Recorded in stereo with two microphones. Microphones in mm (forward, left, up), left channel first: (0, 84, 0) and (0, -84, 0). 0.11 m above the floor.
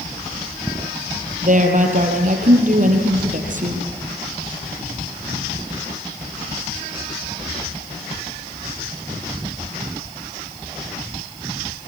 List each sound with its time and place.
1.4 s a woman speaking: 50° right (ahead or behind), 4 m